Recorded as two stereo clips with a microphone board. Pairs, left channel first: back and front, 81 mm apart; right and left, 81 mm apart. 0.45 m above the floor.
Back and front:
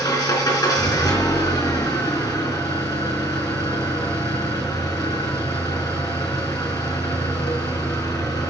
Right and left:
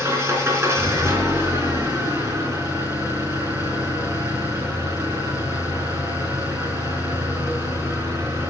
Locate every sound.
0.0 s an engine running: 145° left, 4 m